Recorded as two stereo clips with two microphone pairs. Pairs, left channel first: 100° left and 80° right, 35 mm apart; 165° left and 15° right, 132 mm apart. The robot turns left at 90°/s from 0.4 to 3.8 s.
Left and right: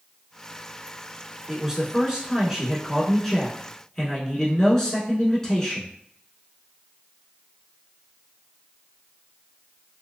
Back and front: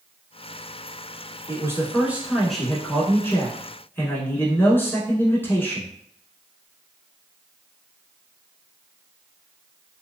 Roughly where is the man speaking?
Ahead.